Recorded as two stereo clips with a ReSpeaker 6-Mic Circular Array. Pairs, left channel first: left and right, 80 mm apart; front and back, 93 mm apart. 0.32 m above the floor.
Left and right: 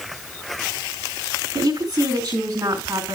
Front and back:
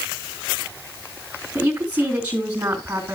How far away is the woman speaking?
About 3 m.